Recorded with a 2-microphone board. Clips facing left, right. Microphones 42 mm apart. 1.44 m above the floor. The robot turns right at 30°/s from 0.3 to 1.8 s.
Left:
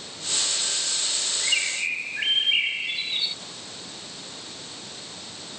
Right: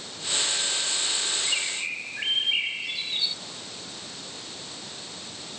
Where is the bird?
30° left (ahead or behind); by 3.4 s 20° left (ahead or behind).